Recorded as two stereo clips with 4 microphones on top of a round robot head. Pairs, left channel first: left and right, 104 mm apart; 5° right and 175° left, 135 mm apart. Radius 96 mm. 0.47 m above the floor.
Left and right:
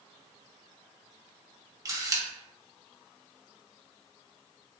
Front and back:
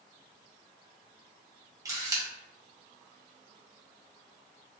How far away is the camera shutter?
About 0.8 m.